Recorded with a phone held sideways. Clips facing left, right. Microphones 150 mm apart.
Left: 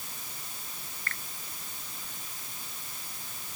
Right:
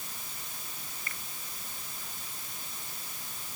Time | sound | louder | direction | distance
1.1 | a finger snap | left 4 dB | 15° right (ahead or behind) | ?